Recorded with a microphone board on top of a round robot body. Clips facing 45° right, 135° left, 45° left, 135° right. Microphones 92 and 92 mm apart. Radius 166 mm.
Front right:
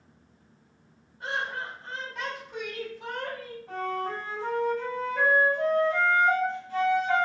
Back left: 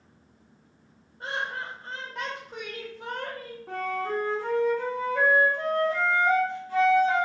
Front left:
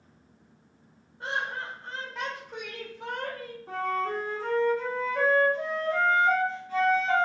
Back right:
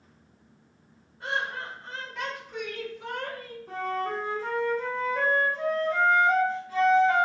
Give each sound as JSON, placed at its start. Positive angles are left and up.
{"t": 1.2, "sound": "laughter", "azimuth_deg": 90, "distance_m": 1.7}
{"t": 3.7, "sound": "a flute", "azimuth_deg": 100, "distance_m": 0.7}